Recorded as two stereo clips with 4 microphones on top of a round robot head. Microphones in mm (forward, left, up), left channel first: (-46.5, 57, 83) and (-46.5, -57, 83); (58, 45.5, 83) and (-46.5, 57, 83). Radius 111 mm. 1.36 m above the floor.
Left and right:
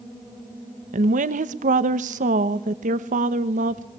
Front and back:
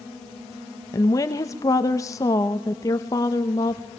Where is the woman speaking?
75° right, 1.2 m.